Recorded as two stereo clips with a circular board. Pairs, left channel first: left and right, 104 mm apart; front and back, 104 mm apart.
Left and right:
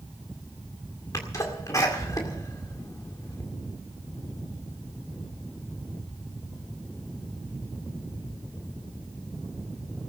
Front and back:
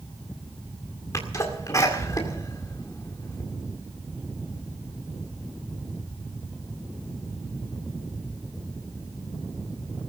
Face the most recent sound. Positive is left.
turn(degrees=45)